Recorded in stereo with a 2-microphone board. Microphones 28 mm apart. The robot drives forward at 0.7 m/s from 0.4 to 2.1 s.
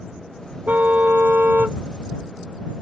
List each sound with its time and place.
0.7 s a car horn: 85° right; by 1.8 s 75° right (ahead or behind)